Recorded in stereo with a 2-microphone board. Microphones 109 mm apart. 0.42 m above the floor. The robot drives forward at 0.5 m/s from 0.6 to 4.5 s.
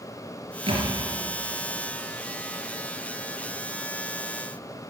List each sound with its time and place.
0.7 s a thud: 60° right (ahead or behind), 3.5 m; by 0.9 s 55° right (ahead or behind), 3.5 m